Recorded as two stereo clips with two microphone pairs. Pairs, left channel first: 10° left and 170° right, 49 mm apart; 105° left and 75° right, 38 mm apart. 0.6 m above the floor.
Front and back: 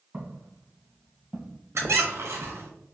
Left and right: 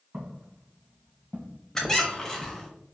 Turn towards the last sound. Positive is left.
turn(degrees=180)